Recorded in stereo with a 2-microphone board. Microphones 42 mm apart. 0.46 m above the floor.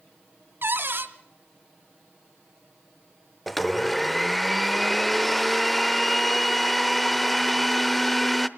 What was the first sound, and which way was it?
A cupboard door, 60° right (ahead or behind).